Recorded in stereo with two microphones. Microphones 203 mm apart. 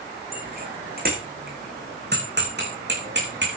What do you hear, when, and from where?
0.3 s a bicycle bell: 45° right (ahead or behind), 7.5 m; by 3.5 s 60° right (ahead or behind), 7.5 m